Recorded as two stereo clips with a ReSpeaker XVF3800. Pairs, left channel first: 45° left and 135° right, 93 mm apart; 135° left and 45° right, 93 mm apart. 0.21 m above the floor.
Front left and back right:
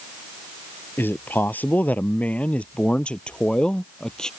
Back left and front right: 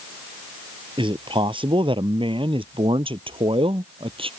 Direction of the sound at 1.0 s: 20° right.